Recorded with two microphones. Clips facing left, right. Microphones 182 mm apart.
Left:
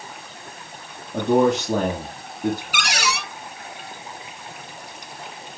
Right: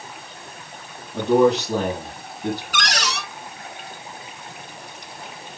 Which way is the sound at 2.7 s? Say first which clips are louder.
Even; 10° left (ahead or behind).